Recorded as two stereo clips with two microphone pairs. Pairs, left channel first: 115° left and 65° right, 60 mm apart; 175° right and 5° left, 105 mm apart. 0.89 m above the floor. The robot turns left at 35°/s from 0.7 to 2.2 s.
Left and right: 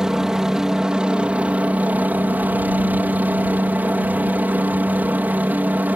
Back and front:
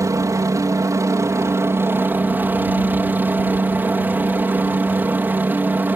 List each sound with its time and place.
0.0 s a helicopter: 5° left; by 6.0 s 50° right